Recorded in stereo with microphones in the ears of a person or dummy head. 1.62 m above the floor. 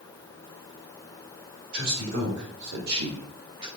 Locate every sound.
1.7 s a man speaking: 65° right (ahead or behind), 2.5 m; by 3.7 s 15° right (ahead or behind), 1.0 m